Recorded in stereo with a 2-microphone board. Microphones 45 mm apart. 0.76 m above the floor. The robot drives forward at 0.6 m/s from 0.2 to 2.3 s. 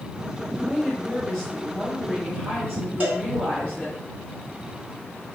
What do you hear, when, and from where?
0.5 s a woman speaking: 10° left (ahead or behind), 2.5 m; by 4.0 s 5° left (ahead or behind), 3.5 m
3.0 s a cowbell: 45° right (ahead or behind), 1.4 m